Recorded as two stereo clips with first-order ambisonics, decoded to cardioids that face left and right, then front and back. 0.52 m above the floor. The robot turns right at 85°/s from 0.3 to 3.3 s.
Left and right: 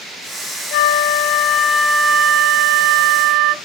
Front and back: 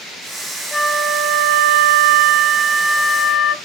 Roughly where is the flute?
Left.